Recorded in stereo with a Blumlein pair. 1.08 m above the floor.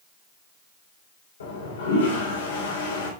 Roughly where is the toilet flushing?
Ahead left.